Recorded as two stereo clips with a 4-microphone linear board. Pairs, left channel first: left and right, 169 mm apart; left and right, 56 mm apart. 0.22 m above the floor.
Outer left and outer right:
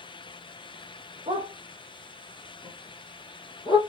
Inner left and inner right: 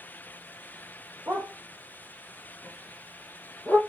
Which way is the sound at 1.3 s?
30° right (ahead or behind).